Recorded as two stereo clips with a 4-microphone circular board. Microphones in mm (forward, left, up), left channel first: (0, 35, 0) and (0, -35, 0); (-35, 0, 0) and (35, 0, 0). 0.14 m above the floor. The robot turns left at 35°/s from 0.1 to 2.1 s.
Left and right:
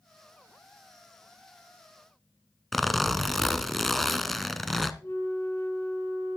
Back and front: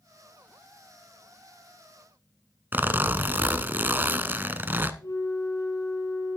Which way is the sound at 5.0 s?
145° left.